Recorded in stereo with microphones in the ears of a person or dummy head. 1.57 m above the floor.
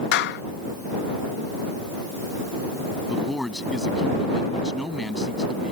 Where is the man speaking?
5° left (ahead or behind).